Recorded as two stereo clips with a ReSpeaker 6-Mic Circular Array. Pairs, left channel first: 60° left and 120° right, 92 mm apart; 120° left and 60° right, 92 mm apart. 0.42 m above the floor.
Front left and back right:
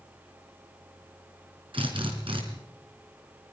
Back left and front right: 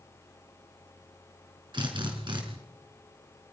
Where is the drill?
95° right, 4 m.